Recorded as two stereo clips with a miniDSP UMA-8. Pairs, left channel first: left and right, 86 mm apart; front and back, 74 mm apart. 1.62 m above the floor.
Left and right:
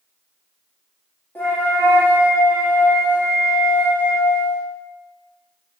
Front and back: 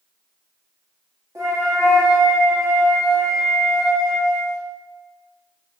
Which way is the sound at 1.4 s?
150° left.